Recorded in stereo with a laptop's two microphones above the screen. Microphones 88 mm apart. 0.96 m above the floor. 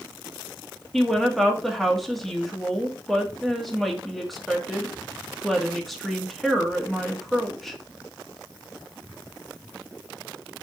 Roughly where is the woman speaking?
Centre.